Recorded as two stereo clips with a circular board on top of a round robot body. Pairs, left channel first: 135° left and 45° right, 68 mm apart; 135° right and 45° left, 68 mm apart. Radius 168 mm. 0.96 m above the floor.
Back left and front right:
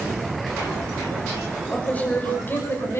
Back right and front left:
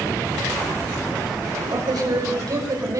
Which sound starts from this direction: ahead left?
A man speaking, at 1.7 s.